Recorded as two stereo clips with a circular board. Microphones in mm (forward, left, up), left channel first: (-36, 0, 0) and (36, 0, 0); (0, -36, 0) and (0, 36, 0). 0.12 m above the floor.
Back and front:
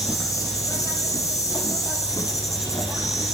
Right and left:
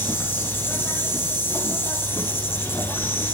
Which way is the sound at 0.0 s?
145° right.